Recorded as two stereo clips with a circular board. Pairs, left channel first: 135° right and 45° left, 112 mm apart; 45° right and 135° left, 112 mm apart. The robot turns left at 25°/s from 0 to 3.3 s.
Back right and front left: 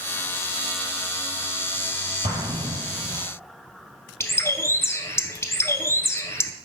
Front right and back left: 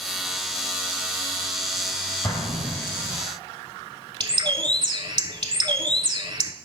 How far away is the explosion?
About 4.5 m.